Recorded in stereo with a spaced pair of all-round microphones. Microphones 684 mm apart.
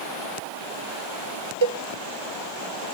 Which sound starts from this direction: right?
A cowbell, at 1.6 s.